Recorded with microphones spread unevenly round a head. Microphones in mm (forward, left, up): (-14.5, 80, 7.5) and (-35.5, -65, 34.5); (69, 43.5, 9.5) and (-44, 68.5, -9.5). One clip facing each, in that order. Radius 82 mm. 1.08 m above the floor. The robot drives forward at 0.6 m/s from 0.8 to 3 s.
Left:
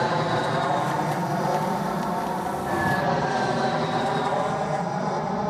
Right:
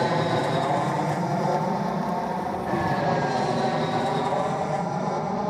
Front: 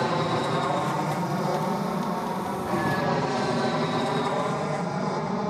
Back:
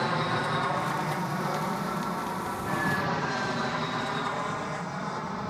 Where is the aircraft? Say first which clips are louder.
Right 1 dB, front 4 dB; 25° right; by 5.5 s 10° right.